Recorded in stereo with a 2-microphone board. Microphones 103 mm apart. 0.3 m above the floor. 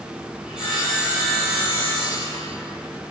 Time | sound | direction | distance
0.5 | sawing | 5° right (ahead or behind) | 2.5 m